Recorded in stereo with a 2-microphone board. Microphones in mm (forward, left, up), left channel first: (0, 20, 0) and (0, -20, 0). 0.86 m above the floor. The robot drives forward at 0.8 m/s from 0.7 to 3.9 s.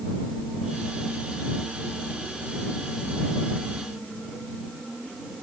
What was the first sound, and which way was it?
Only background noise.